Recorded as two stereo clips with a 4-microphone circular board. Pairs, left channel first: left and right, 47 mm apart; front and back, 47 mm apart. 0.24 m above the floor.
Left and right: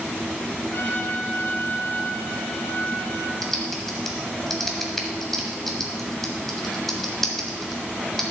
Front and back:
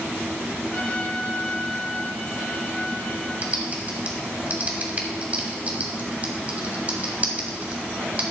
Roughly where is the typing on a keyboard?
Behind.